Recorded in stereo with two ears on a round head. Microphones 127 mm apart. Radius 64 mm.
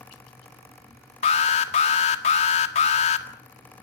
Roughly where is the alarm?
Left.